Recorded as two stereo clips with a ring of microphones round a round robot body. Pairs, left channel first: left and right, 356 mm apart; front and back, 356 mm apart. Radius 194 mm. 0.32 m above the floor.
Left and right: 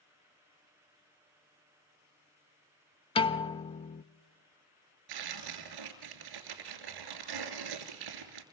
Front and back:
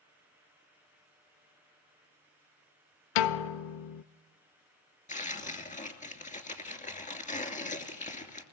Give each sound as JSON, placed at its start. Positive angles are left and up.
{"t": 3.1, "sound": "a piano", "azimuth_deg": 15, "distance_m": 0.6}
{"t": 5.1, "sound": "tearing paper", "azimuth_deg": -70, "distance_m": 2.5}